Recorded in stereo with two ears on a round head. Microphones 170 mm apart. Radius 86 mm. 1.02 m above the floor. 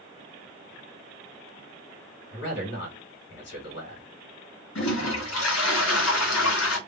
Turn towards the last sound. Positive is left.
turn(degrees=80)